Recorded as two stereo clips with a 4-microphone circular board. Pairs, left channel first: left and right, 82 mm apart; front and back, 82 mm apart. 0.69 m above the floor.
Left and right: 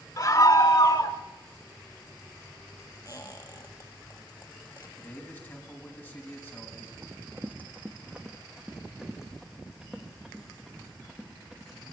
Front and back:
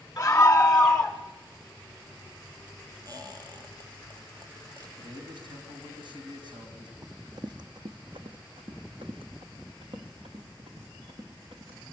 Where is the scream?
65° left, 1.4 m; by 1.2 s 85° left, 1.7 m.